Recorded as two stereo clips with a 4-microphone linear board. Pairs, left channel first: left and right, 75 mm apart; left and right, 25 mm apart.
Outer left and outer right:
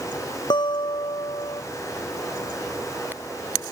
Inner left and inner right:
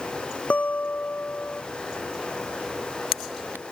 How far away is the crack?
I don't hear a crack.